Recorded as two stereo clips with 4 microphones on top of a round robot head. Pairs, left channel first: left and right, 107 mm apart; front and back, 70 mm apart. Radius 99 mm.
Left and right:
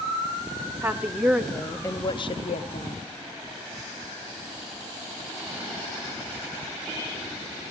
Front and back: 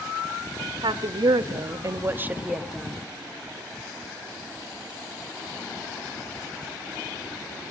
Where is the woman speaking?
165° right, 1.3 m; by 3.0 s 85° left, 1.3 m.